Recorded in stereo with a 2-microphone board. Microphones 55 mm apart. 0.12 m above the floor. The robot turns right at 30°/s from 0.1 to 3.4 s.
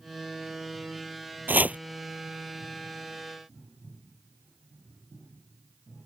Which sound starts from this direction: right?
Chopping, at 1.5 s.